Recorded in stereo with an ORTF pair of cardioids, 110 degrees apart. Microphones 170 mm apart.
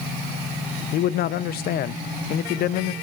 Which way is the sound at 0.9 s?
60° left.